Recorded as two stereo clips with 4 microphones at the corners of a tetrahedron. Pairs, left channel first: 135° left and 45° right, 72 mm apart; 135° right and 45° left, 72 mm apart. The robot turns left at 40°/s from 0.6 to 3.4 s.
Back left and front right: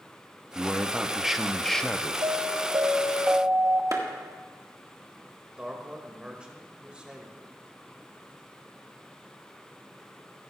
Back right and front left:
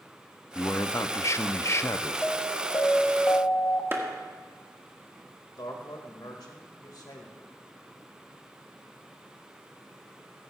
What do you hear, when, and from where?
0.6 s a man speaking: 100° right, 0.5 m; by 2.1 s 165° right, 0.5 m
2.2 s an alarm: 55° right, 0.9 m; by 3.8 s 100° right, 0.9 m
3.9 s a clap: 10° right, 1.5 m
5.6 s a man speaking: 120° right, 1.7 m